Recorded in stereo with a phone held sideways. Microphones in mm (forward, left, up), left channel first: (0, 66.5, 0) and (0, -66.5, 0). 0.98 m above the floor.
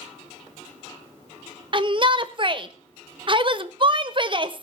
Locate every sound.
1.7 s a shout: 40° right (ahead or behind), 1.1 m